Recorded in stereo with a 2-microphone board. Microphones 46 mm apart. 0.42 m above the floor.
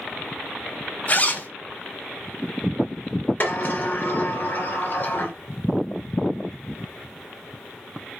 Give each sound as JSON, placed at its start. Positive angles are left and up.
{"t": 1.1, "sound": "a zipper", "side_deg": 35, "distance_m": 1.6}
{"t": 3.4, "sound": "a sliding door", "side_deg": 40, "distance_m": 2.5}